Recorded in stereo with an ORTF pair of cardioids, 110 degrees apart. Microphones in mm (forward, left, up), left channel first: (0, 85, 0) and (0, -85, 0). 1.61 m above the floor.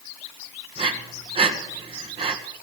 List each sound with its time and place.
0.8 s breathing: 35° right, 1.7 m